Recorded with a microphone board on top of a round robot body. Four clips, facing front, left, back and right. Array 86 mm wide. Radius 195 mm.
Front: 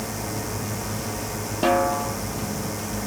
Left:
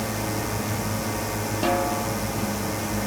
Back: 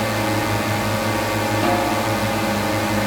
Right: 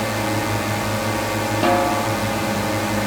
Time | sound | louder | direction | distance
0.0 | a drone | right 6 dB, back 10 dB | 145° right | ?
1.6 | a snare drum | right 6 dB, front 2 dB | 80° right | ?